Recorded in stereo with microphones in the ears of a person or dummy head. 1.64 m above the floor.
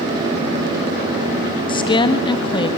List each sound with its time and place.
1.7 s a woman speaking: 30° left (ahead or behind), 1.5 m